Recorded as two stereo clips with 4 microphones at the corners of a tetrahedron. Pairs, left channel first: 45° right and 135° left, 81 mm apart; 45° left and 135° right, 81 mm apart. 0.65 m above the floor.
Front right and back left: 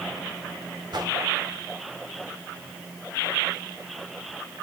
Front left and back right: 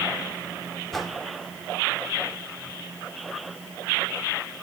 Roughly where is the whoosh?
Behind left.